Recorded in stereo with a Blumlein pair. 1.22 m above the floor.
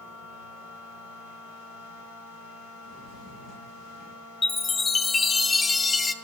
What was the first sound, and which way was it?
A machine running, 60° left.